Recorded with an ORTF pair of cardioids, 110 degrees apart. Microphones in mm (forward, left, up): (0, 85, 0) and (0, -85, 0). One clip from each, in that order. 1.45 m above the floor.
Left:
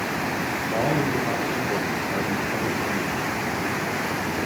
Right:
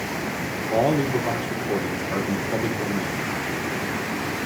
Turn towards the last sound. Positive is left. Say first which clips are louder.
# right 4 dB
turn(degrees=-35)